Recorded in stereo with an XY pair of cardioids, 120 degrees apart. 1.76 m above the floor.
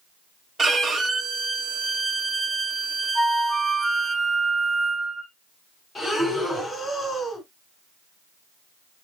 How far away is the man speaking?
No man speaking in this recording.